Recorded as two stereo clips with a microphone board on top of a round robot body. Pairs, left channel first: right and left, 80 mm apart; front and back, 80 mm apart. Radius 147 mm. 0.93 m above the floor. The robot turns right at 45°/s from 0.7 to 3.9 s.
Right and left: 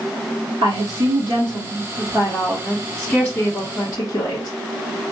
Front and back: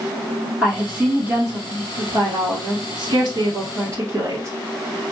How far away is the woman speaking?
About 2.5 m.